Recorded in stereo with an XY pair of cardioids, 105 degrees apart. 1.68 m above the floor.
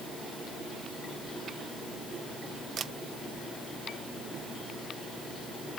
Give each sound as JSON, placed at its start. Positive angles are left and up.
{"t": 2.8, "sound": "a camera shutter", "azimuth_deg": -60}